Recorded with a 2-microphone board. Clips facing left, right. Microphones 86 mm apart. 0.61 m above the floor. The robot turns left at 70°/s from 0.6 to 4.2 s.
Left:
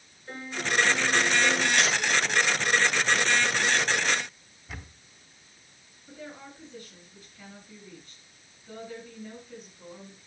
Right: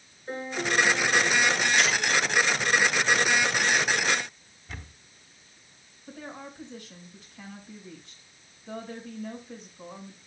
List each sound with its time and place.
0.3 s a piano: 150° right, 4 m; by 1.7 s 135° left, 4 m
1.8 s tapping: 60° left (ahead or behind), 7.5 m; by 2.0 s 50° left (ahead or behind), 7.5 m
4.7 s a camera shutter: centre (ahead or behind), 1.3 m
6.1 s a woman speaking: 75° right (ahead or behind), 6 m